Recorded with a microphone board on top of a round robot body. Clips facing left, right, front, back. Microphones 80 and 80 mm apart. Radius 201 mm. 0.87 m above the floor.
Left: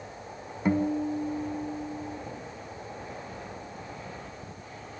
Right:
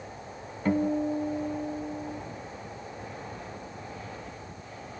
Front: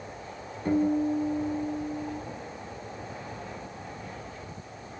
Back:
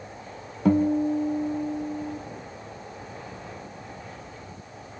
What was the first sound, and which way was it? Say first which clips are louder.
A guitar: even, back 4 dB; 170° left.